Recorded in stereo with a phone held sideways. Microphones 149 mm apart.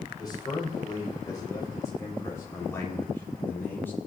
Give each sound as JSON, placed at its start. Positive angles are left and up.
{"t": 0.2, "sound": "a man speaking", "side_deg": 25, "distance_m": 5.5}